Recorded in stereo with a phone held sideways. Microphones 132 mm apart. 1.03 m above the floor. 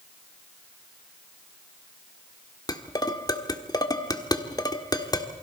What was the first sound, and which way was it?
Dishes clattering, 30° left (ahead or behind).